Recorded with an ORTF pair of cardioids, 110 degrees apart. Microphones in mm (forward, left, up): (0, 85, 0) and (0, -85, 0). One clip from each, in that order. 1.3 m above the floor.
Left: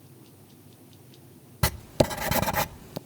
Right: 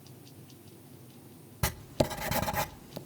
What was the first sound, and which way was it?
Writing, 25° left.